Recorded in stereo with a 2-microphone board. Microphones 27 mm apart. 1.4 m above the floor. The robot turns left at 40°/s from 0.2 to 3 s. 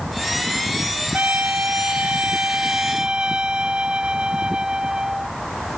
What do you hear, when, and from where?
1.1 s a trumpet: 75° right; by 5.3 s 150° right